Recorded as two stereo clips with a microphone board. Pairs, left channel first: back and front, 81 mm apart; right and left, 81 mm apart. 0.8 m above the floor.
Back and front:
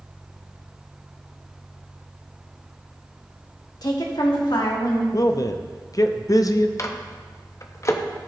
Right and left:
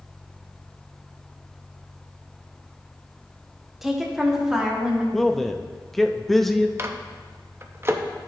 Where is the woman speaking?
175° left, 1.3 m; by 5.0 s 170° left, 2.0 m.